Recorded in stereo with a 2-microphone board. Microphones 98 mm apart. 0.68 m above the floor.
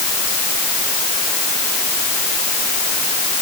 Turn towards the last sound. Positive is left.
No sound to turn to.